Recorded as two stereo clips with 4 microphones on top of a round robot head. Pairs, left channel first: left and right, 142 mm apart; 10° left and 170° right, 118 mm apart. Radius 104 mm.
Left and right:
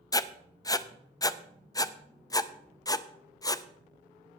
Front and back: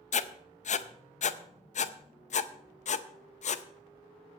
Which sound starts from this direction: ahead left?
Writing, at 0.1 s.